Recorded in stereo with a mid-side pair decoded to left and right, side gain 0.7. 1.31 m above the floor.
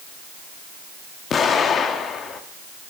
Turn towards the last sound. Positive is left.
turn(degrees=35)